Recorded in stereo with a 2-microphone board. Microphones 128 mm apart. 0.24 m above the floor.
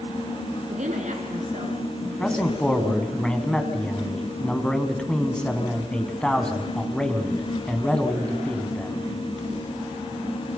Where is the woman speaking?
70° right (ahead or behind), 2.5 m; by 3.1 s 65° right (ahead or behind), 4 m.